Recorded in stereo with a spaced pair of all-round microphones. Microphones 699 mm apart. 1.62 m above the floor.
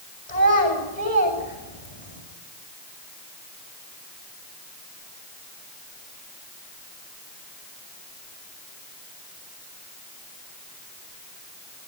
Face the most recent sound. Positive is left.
turn(degrees=85)